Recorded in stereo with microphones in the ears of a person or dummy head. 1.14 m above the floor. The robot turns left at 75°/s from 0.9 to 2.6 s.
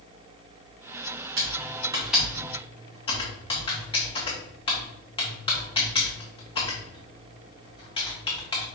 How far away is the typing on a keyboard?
About 1.3 m.